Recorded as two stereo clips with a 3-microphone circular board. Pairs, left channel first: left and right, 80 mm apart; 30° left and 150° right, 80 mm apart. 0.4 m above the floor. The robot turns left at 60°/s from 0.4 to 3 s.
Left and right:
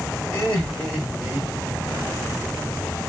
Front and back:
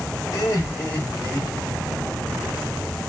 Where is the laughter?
20° left, 1.2 m; by 1.8 s 65° right, 1.2 m.